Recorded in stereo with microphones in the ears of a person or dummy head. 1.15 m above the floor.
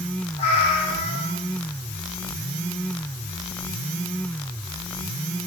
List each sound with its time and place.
0.4 s a cat meowing: 35° left (ahead or behind), 1.6 m